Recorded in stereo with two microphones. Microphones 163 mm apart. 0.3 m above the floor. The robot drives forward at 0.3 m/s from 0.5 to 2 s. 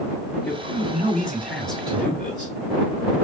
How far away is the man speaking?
About 2.0 m.